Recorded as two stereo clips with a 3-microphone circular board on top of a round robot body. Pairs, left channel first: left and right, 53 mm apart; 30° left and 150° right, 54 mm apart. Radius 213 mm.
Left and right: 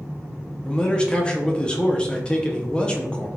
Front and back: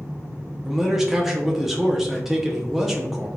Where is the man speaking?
135° left, 0.7 m.